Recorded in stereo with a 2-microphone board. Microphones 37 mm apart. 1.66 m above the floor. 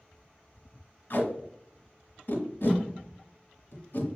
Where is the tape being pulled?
50° left (ahead or behind), 1.3 m.